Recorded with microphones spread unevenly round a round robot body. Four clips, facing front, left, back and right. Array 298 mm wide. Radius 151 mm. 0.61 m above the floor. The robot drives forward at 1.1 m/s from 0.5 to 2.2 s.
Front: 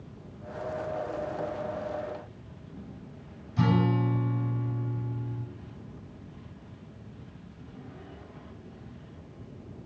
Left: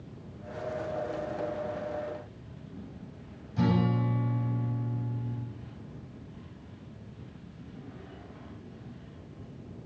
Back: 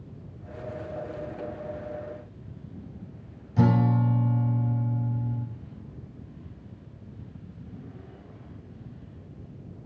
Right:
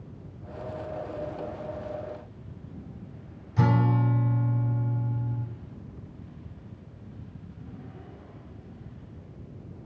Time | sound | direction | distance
3.6 | a guitar | 170° right | 3.5 m